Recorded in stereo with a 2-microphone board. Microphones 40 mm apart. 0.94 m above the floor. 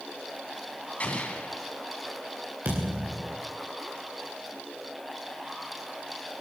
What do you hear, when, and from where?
1.0 s an explosion: 40° left (ahead or behind), 2.5 m
2.6 s a thud: 55° right (ahead or behind), 7 m